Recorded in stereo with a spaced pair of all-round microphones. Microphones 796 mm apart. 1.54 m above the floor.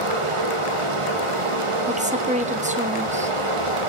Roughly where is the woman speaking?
Centre.